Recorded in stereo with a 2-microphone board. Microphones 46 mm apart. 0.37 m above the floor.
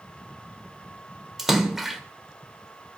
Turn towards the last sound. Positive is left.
turn(degrees=-5)  # may be behind; listen again after turning